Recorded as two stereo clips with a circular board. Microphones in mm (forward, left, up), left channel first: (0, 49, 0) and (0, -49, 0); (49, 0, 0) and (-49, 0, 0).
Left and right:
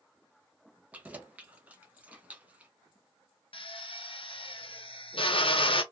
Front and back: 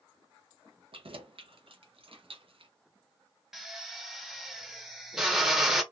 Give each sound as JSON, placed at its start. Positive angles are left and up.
{"t": 0.9, "sound": "keys jangling", "azimuth_deg": -165, "distance_m": 0.6}
{"t": 3.5, "sound": "a drill", "azimuth_deg": 95, "distance_m": 0.6}